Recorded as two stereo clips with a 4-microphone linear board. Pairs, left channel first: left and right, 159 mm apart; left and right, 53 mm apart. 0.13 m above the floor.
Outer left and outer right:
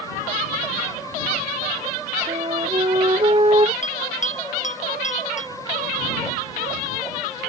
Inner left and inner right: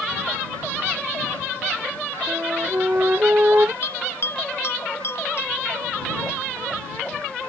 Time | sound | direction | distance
2.3 | a flute | 35° right (ahead or behind) | ?
3.8 | a bell | 50° left (ahead or behind) | ?